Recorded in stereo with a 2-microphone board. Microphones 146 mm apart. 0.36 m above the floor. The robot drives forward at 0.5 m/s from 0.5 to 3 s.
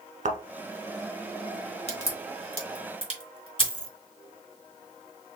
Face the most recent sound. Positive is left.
turn(degrees=-70)  # may be behind; listen again after turning